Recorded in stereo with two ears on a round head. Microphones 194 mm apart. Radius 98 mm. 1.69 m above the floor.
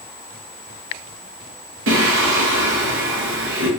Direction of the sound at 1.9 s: 60° right (ahead or behind).